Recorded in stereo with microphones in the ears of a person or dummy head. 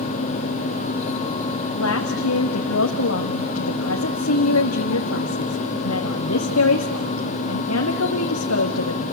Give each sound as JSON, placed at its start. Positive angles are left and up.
{"t": 1.8, "sound": "a woman speaking", "side_deg": 85, "distance_m": 1.7}